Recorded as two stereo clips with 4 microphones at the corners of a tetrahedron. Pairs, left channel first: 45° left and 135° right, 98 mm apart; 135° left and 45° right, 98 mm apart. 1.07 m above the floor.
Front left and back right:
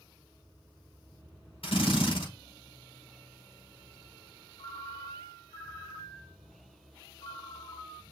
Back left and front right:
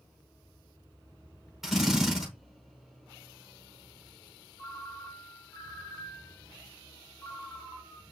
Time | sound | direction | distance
1.6 | a drill | 40° left | 6 m
4.6 | a ringtone | 65° left | 2.5 m